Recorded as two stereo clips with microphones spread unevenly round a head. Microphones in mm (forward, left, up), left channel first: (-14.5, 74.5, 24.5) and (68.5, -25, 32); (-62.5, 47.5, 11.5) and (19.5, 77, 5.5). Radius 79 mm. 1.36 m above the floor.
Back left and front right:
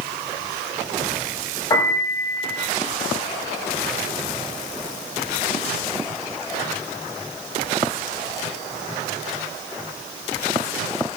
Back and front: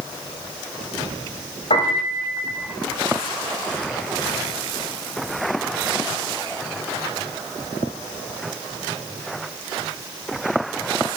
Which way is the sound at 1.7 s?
160° right.